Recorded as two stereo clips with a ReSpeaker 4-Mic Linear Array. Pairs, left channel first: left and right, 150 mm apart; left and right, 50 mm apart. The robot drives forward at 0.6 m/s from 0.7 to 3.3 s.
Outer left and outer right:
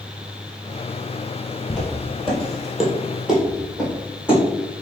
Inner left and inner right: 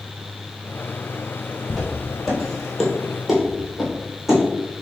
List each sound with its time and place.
1.7 s footsteps: 5° left (ahead or behind), 1.8 m; by 4.4 s 5° right (ahead or behind), 2 m